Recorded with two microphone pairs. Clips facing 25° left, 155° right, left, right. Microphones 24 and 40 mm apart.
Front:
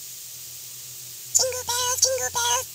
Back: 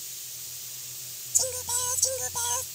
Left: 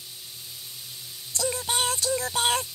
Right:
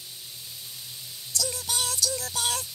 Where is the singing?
40° left.